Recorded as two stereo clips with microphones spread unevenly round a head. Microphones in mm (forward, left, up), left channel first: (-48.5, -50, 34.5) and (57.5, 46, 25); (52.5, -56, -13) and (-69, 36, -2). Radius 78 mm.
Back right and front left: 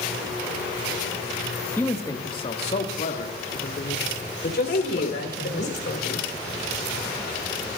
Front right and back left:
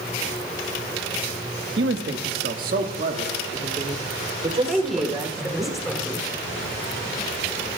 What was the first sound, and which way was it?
A man speaking, 145° left.